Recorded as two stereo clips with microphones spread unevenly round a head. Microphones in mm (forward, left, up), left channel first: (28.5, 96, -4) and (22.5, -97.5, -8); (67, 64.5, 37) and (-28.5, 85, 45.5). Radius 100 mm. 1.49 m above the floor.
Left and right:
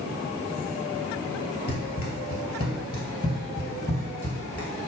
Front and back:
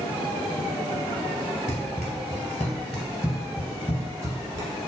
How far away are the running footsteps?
About 1.9 m.